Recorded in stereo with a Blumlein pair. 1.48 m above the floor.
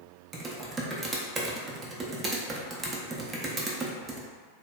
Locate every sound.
0.3 s typing on a keyboard: 20° right, 0.5 m